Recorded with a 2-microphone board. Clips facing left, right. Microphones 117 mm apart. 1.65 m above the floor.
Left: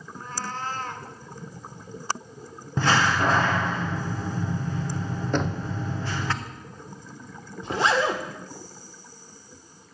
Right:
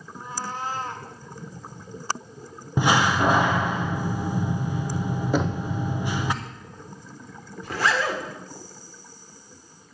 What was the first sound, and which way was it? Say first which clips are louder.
A cat meowing: right 1 dB; 15° right (ahead or behind).